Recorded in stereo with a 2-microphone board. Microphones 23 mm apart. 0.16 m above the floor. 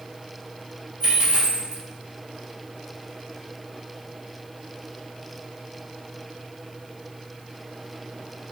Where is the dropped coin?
40° right (ahead or behind), 1.3 m.